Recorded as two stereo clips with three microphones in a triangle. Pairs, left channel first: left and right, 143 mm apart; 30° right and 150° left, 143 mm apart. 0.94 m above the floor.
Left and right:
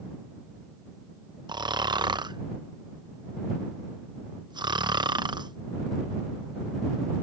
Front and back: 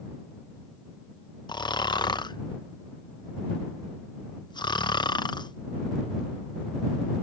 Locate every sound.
1.5 s snoring: 60° right